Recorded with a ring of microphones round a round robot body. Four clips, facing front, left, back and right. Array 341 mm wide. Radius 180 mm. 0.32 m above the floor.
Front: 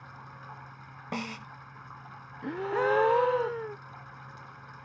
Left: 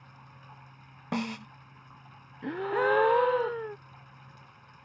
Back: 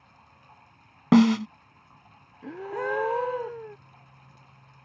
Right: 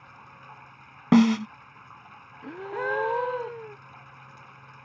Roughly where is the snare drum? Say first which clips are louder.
Right 15 dB, back 19 dB; behind right.